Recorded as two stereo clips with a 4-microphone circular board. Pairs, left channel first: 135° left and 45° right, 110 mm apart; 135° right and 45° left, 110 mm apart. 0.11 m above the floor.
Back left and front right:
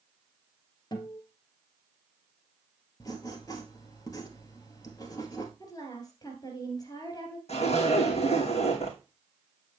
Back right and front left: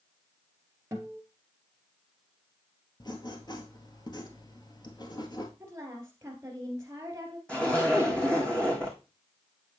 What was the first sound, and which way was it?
A guitar, 105° left.